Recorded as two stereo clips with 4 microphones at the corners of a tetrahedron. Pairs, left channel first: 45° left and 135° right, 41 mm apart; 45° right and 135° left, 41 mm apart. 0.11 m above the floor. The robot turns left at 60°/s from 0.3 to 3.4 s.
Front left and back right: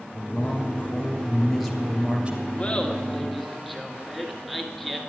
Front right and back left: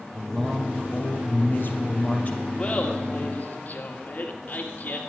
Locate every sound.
0.1 s a man speaking: 30° left, 2.5 m; by 2.5 s 95° right, 2.5 m
2.6 s laughter: 5° left, 1.8 m; by 5.0 s 45° right, 1.8 m